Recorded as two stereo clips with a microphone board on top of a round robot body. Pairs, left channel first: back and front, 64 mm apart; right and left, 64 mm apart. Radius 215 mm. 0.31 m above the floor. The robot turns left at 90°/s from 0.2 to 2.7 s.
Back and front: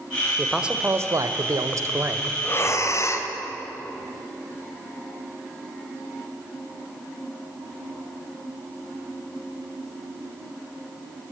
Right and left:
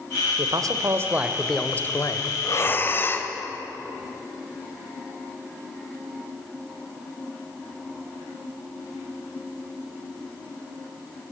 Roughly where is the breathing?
Behind right.